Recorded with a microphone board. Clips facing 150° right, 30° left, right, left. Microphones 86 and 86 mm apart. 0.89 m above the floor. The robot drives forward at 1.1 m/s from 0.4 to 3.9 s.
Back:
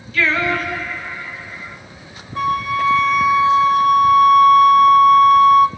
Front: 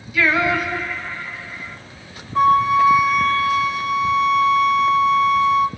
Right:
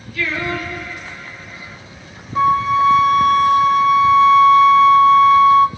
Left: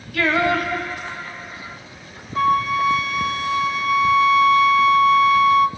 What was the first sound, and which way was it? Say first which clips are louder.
Singing: front 1 dB, left 5 dB; 110° left.